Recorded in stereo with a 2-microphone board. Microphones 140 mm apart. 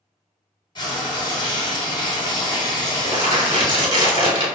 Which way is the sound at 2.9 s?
45° right (ahead or behind).